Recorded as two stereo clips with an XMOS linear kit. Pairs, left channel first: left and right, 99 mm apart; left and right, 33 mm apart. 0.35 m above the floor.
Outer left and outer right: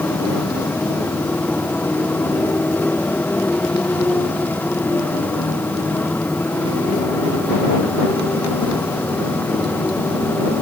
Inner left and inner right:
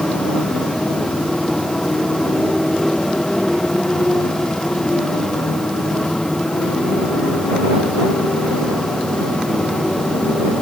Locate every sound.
0.0 s a motorcycle: 20° left (ahead or behind)